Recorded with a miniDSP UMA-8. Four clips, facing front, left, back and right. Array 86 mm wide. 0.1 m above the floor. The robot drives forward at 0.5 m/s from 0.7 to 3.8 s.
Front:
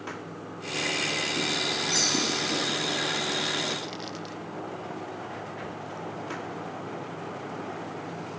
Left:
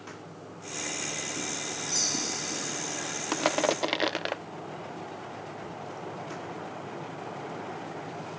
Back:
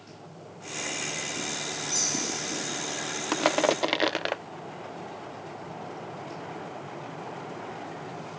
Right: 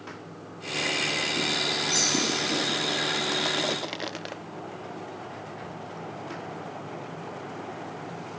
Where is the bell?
30° right; by 2.8 s 40° right.